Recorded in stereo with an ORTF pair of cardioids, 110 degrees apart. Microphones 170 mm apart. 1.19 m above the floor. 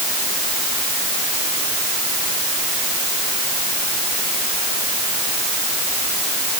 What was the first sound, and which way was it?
Only background noise.